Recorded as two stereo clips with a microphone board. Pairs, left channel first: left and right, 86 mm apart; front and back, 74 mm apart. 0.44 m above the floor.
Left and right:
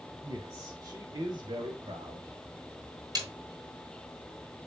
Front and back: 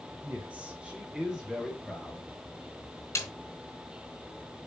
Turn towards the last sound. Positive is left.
turn(degrees=-55)